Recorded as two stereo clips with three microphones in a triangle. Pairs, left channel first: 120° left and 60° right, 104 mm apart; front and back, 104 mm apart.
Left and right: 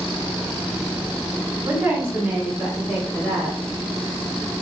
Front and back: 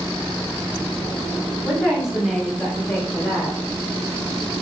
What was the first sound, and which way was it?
A woman speaking, 115° right.